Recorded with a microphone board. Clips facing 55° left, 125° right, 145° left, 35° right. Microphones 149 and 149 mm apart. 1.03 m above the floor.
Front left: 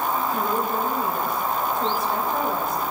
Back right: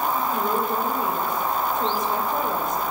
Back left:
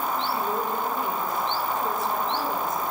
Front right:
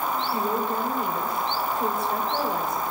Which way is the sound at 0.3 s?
55° right.